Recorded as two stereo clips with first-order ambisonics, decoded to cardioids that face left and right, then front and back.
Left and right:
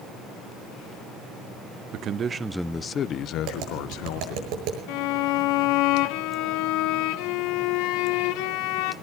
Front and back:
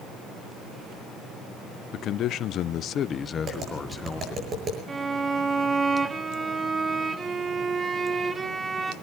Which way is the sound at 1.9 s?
50° right.